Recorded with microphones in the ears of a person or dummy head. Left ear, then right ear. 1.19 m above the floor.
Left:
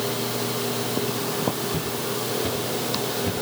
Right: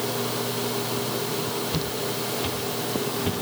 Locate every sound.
1.7 s footsteps: 70° right (ahead or behind), 7 m; by 3.3 s 80° right, 8 m